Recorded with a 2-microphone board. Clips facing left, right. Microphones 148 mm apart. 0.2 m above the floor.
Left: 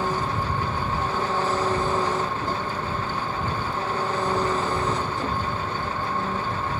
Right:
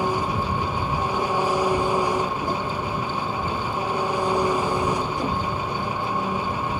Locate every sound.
0.0 s an engine running: 15° right (ahead or behind)